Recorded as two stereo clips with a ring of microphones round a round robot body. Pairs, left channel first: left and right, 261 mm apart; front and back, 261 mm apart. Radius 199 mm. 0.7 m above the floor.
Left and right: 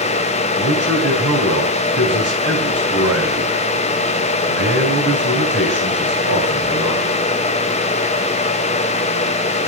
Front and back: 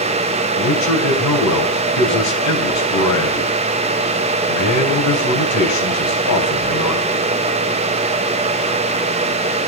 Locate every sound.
0.6 s a man speaking: 30° right, 4 m